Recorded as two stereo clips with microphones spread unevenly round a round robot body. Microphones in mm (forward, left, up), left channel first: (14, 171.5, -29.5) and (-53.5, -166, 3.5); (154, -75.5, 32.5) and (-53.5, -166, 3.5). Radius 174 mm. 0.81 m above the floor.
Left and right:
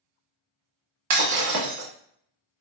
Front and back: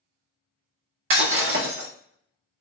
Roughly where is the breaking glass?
Behind right.